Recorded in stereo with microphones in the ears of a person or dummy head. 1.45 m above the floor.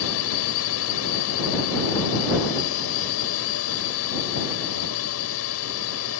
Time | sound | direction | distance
0.0 | a drone | 75° left (ahead or behind) | ?